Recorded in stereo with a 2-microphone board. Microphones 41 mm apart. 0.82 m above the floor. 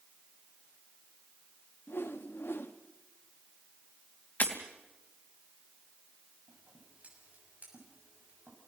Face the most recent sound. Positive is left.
turn(degrees=-40)  # may be behind; listen again after turning